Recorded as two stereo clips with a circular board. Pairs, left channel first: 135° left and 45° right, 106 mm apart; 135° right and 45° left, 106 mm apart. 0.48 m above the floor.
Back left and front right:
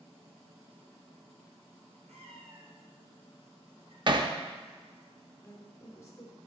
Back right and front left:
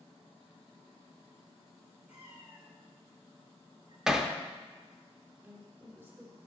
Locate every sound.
2.1 s a cat meowing: 35° right, 2.5 m; by 4.0 s 5° right, 1.9 m
4.1 s hammering: 40° right, 0.5 m
5.4 s a woman speaking: 100° left, 1.2 m